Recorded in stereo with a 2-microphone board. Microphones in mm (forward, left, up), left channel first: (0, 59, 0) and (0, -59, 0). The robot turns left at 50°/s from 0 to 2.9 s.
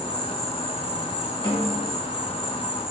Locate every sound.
0.0 s an insect: 35° right, 1.6 m; by 2.9 s straight behind, 1.6 m
1.4 s a snare drum: 55° left (ahead or behind), 2.0 m; by 1.8 s 65° left (ahead or behind), 2.0 m